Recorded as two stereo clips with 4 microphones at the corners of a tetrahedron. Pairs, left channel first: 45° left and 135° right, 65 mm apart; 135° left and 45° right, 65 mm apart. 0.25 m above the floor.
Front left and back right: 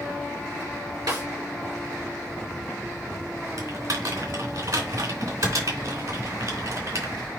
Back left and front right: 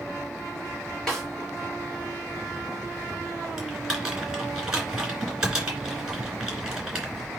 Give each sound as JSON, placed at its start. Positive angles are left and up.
{"t": 1.1, "sound": "a snare drum", "azimuth_deg": -145, "distance_m": 4.0}
{"t": 3.6, "sound": "typing on a keyboard", "azimuth_deg": -125, "distance_m": 3.0}